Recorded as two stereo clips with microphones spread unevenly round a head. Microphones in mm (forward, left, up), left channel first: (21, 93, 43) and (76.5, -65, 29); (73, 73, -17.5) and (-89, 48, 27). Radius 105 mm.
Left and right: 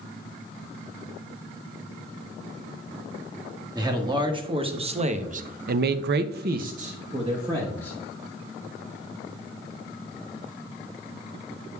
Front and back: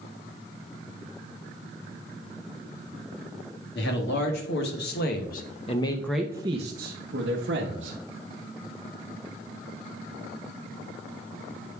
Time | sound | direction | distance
3.8 | a man speaking | 5° right | 1.6 m